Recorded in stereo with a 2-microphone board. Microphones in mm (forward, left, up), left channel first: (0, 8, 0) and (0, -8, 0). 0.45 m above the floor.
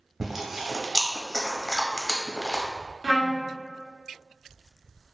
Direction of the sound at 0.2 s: 20° right (ahead or behind).